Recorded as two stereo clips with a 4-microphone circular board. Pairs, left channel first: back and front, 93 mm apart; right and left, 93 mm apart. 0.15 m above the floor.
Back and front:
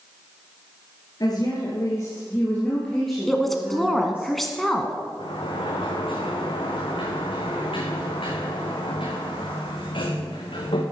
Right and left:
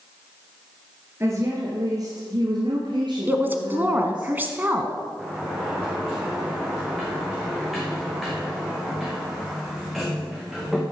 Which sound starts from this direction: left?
A woman speaking, at 3.3 s.